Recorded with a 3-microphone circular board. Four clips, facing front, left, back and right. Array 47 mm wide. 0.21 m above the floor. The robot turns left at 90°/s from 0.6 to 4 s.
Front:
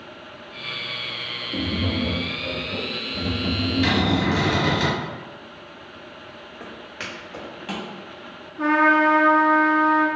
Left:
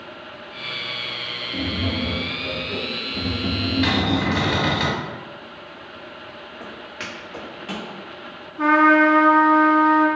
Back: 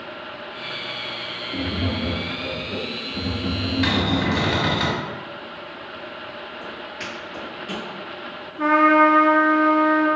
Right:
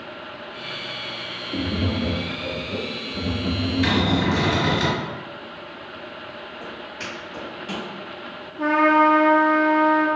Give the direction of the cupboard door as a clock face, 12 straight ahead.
7 o'clock.